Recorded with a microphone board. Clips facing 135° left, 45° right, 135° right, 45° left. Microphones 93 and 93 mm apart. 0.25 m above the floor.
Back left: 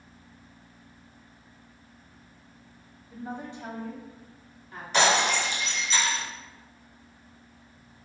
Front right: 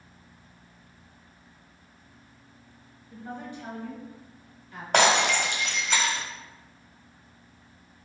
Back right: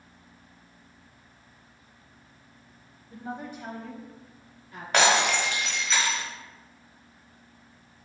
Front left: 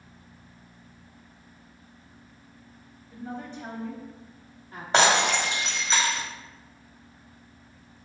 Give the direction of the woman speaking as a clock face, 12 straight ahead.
5 o'clock.